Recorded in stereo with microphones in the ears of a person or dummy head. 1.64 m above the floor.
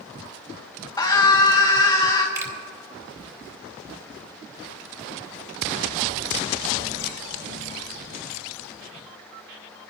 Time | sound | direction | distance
1.0 | a scream | 20° left (ahead or behind) | 1.5 m
2.4 | a finger snap | 20° right (ahead or behind) | 2.5 m